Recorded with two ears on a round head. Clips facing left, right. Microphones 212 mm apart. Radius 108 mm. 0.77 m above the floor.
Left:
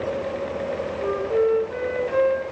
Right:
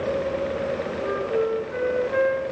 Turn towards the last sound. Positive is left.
turn(degrees=40)  # may be behind; listen again after turning